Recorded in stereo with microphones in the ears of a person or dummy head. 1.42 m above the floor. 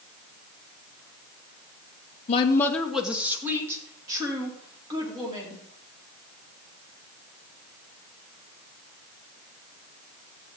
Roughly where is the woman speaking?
Left.